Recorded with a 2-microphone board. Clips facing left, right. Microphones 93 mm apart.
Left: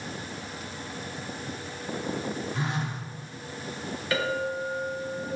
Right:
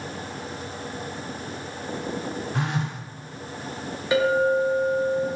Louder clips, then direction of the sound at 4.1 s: Right 9 dB; 20° right (ahead or behind).